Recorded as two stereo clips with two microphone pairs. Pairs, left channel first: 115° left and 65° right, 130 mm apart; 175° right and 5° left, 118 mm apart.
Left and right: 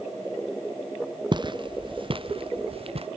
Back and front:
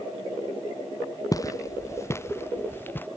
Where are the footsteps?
115° right; by 3.1 s 105° right.